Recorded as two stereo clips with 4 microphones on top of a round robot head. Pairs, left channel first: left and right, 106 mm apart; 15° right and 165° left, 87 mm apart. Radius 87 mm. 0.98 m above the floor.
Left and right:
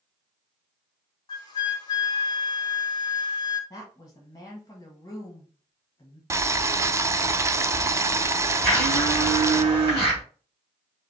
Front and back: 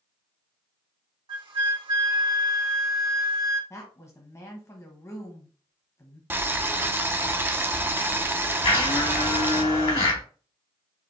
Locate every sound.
1.3 s a flute: 140° left, 1.4 m
3.7 s a woman speaking: 35° left, 1.2 m
6.3 s boiling: 140° right, 0.5 m
8.6 s a blender: 25° right, 2.5 m